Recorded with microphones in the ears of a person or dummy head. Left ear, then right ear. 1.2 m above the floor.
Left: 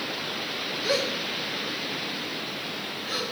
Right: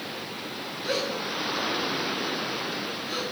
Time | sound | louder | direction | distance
0.8 | a gasp | left 1 dB | 10° left (ahead or behind) | 1.3 m